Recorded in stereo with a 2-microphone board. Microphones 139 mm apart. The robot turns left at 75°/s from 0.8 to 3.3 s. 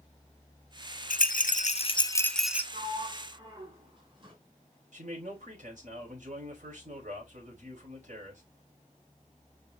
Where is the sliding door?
80° right, 3.5 m; by 4.3 s 40° right (ahead or behind), 3.5 m.